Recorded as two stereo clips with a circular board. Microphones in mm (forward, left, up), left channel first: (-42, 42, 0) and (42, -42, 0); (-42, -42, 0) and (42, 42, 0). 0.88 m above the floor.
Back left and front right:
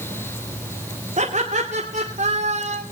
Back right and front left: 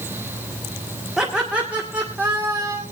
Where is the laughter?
40° right, 2 m; by 2.8 s 25° right, 3 m.